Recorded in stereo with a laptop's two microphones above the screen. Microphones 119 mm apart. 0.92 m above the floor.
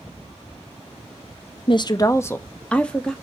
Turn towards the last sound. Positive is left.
turn(degrees=5)  # may be behind; listen again after turning